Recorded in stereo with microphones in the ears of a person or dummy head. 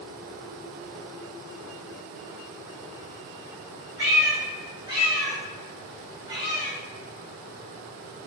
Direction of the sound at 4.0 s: 25° right (ahead or behind).